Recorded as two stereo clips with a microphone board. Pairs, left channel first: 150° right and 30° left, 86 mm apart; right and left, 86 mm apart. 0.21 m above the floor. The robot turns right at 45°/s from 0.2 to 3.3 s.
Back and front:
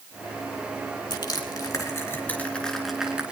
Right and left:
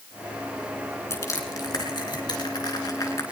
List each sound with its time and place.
1.1 s crushing: 140° right, 3 m; by 3.2 s 45° right, 3 m